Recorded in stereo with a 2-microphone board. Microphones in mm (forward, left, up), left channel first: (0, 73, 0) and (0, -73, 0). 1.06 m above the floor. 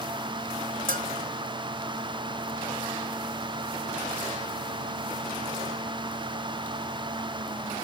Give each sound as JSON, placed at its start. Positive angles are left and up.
{"t": 0.9, "sound": "a bell", "side_deg": -70, "distance_m": 1.7}